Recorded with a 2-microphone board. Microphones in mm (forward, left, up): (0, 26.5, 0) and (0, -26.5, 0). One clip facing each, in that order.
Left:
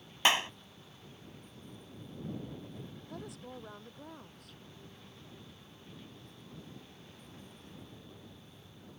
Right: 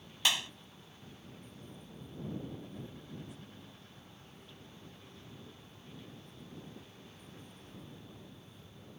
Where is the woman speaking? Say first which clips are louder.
Left 4 dB; 70° left (ahead or behind).